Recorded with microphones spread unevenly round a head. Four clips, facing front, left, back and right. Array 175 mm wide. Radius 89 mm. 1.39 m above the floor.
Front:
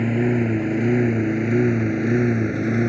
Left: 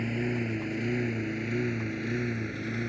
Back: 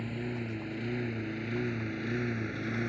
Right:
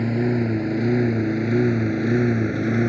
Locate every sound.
0.0 s a lawn mower: 30° right; by 2.9 s 40° right